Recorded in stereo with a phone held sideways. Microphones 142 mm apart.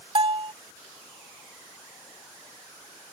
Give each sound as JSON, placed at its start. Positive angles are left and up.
{"t": 0.1, "sound": "a bell", "side_deg": -40}